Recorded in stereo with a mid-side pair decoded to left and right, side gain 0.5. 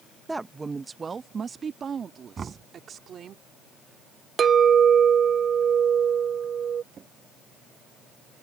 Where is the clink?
45° right.